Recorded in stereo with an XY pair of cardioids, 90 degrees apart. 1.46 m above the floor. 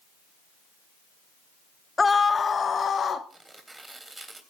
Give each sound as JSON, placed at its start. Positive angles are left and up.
{"t": 2.0, "sound": "a scream", "azimuth_deg": 25, "distance_m": 0.6}
{"t": 3.3, "sound": "tearing paper", "azimuth_deg": -20, "distance_m": 3.0}